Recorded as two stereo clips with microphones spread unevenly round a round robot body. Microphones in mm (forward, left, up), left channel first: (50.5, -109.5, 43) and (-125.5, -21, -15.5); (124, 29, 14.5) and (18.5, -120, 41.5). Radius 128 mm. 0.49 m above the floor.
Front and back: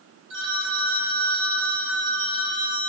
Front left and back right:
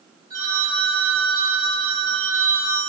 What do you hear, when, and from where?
0.3 s a phone ringing: 155° left, 1.9 m